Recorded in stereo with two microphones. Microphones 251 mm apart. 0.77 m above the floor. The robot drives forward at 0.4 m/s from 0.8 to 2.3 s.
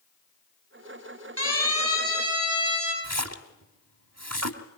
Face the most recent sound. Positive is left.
turn(degrees=-85)